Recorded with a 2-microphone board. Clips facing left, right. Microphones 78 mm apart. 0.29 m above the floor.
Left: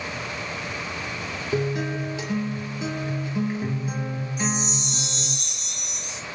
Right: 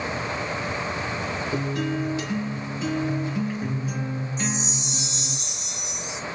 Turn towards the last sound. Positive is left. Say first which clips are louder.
# left 5 dB
turn(degrees=55)  # may be behind; listen again after turning